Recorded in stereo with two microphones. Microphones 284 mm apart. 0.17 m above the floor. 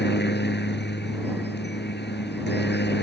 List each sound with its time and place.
0.0 s a helicopter: 35° left (ahead or behind)